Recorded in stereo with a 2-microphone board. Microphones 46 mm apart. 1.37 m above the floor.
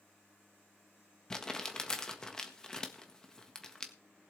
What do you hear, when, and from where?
1.3 s crumpling: 15° left (ahead or behind), 1.5 m